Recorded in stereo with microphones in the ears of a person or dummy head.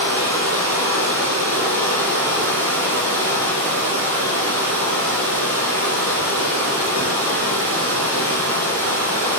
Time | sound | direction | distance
0.0 | running water | 40° right (ahead or behind) | 1.6 m